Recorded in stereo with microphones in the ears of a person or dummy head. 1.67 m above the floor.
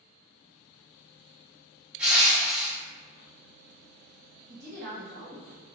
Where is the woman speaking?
45° right (ahead or behind), 2.0 m.